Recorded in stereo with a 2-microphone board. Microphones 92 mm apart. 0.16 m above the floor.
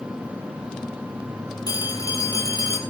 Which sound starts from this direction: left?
A phone ringing, at 1.7 s.